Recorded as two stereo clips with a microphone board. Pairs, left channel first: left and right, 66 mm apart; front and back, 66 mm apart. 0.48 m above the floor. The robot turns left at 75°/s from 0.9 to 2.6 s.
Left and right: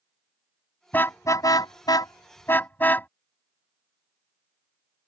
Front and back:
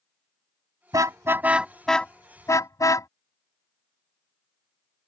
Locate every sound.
0.9 s a car horn: 155° left; by 3.1 s 30° left